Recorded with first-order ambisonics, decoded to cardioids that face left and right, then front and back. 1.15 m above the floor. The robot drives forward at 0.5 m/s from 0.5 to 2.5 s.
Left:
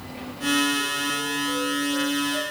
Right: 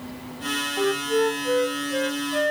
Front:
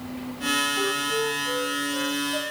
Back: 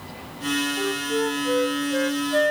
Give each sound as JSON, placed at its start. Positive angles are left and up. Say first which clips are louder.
{"t": 0.8, "sound": "a flute", "louder": "right 3 dB, even", "azimuth_deg": -90, "distance_m": 0.5}